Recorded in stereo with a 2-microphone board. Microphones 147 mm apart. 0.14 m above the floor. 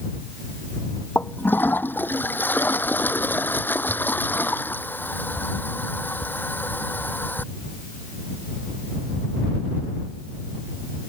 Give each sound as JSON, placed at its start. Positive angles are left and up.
{"t": 1.1, "sound": "a toilet flushing", "side_deg": 15}